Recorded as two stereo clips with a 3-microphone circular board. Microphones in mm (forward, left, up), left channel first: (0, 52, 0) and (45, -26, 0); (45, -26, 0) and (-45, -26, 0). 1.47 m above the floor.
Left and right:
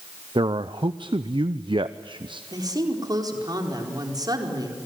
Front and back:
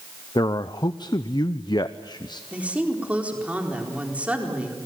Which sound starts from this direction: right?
A woman speaking, at 2.5 s.